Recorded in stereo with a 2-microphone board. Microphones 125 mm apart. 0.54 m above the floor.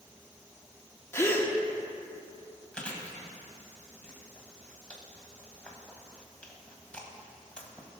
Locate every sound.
1.1 s a gasp: 20° left (ahead or behind), 1.0 m
2.7 s chewing: 10° left (ahead or behind), 1.7 m